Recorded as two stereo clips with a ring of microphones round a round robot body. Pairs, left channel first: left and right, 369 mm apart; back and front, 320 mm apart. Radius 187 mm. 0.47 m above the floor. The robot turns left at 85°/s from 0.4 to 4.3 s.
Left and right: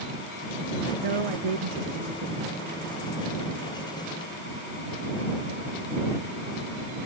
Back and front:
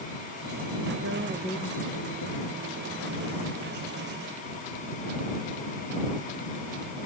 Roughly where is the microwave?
No microwave in this recording.